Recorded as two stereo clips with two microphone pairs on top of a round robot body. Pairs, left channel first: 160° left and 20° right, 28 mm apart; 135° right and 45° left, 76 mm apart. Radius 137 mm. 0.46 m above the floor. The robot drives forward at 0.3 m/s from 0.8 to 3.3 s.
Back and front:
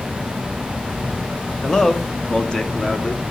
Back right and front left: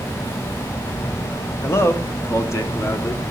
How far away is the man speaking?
About 1.3 m.